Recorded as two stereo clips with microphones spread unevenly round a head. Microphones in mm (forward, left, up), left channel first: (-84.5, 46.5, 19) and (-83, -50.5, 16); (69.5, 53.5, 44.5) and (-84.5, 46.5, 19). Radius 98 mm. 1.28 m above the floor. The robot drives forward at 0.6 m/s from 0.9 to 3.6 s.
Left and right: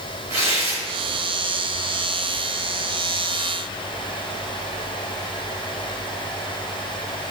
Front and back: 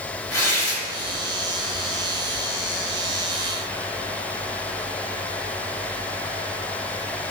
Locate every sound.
0.3 s tearing paper: 70° right, 3 m